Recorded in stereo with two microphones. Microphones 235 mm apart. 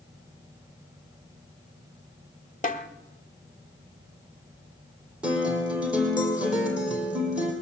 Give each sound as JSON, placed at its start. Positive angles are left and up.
{"t": 2.6, "sound": "a snare drum", "side_deg": 30, "distance_m": 1.1}
{"t": 5.2, "sound": "a guitar", "side_deg": -5, "distance_m": 4.0}